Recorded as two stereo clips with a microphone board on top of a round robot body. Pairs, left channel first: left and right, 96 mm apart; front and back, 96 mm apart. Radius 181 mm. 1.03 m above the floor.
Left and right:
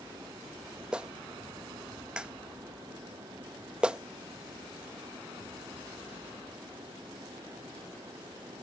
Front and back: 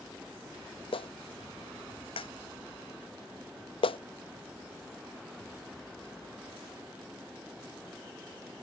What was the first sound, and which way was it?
A clap, 10° right.